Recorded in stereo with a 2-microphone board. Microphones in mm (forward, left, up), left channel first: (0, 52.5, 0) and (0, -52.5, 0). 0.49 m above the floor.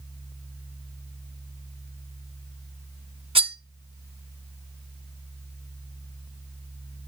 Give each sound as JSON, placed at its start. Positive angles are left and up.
{"t": 3.4, "sound": "cutlery clinking", "side_deg": -60, "distance_m": 0.6}